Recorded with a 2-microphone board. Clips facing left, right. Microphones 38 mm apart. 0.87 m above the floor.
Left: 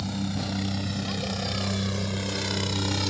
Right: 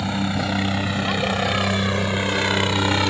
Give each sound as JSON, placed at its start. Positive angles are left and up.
{"t": 0.0, "sound": "a helicopter", "side_deg": -55}